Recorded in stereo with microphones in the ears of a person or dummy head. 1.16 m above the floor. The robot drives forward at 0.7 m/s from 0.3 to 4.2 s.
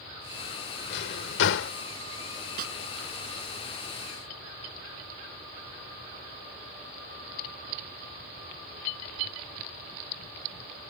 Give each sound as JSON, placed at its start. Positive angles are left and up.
{"t": 0.9, "sound": "a drawer", "side_deg": 60}
{"t": 2.6, "sound": "a snare drum", "side_deg": -50}